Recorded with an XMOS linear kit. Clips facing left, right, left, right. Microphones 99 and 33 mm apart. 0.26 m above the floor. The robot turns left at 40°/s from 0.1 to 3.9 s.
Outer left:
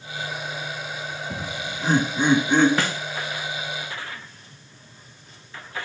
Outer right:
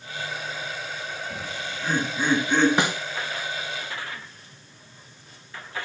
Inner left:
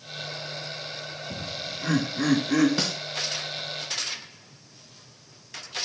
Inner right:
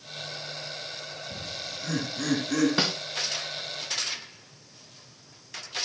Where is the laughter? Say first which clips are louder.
Outer left 2 dB, inner left 3 dB; 55° left (ahead or behind), 3 m; by 2.7 s 10° left (ahead or behind), 3 m.